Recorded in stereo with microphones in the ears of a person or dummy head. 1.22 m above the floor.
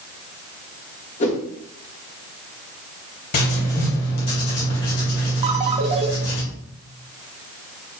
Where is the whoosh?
40° left (ahead or behind), 1.8 m.